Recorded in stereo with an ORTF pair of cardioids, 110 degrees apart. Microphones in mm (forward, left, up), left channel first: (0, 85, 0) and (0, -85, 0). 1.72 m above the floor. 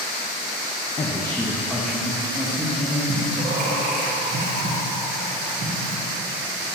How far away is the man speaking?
About 0.7 m.